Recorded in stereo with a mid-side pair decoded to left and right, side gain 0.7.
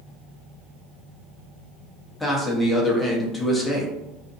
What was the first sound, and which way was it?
A man speaking, 10° left.